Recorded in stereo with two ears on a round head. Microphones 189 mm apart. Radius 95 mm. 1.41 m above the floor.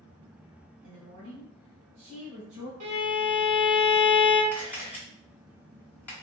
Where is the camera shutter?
10° left (ahead or behind), 1.4 m.